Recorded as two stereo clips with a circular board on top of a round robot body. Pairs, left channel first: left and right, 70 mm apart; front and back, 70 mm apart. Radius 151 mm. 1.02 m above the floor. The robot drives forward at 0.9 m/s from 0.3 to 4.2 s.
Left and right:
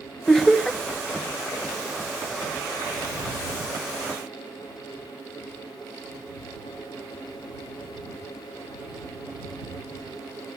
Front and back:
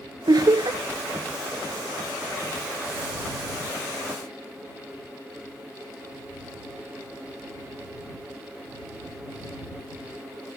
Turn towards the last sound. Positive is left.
turn(degrees=180)